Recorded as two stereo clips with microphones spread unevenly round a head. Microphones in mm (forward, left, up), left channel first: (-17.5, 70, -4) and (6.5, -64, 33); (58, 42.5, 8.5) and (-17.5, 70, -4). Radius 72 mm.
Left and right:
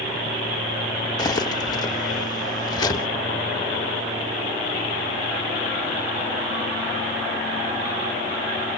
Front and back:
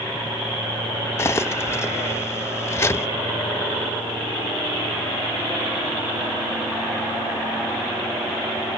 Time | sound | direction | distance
1.2 | cutlery clinking | 30° left | 0.9 m